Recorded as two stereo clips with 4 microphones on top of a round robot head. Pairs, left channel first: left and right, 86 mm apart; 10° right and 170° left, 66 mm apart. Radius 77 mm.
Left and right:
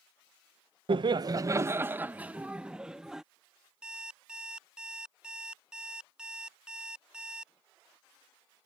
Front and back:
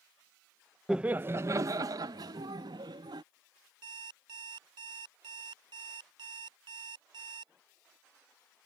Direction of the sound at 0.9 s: 110° right.